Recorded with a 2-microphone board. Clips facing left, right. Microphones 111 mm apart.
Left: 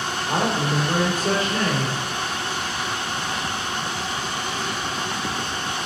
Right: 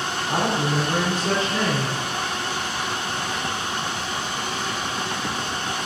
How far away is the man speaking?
About 2.5 m.